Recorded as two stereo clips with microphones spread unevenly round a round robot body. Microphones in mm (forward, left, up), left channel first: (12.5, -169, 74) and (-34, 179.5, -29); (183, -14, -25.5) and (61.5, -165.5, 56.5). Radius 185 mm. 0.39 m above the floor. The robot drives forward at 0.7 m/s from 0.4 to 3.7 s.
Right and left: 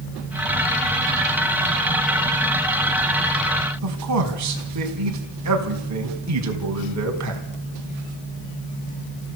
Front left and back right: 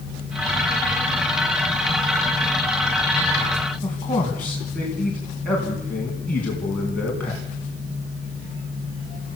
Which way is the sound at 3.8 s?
125° left.